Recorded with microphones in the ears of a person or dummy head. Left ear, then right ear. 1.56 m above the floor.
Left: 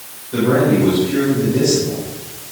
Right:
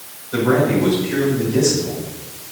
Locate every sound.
0.3 s a man speaking: 60° right (ahead or behind), 7 m